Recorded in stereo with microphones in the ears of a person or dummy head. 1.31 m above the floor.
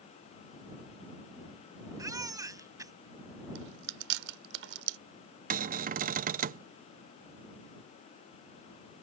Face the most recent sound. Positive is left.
turn(degrees=-40)  # may be behind; listen again after turning